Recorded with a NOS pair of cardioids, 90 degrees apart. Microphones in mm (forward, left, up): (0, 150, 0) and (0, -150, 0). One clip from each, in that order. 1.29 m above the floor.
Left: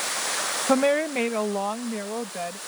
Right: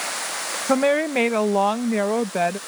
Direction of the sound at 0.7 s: 5° right.